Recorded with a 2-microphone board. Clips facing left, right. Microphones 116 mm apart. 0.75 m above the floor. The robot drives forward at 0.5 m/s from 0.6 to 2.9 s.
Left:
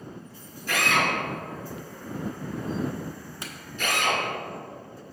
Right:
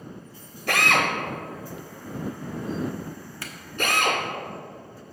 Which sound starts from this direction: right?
A drill, at 0.7 s.